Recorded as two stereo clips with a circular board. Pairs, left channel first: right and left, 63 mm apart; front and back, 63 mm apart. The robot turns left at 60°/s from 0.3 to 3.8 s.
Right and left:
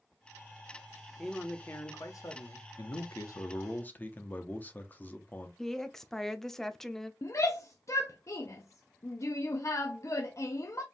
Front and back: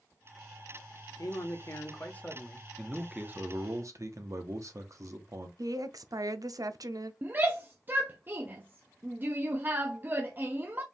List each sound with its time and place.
1.2 s a man speaking: 10° right, 1.0 m; by 2.7 s 95° right, 1.0 m
2.8 s a man speaking: 90° right, 0.9 m; by 5.5 s 155° right, 0.9 m
5.6 s a woman speaking: 175° right, 0.6 m
7.2 s a shout: 125° right, 0.5 m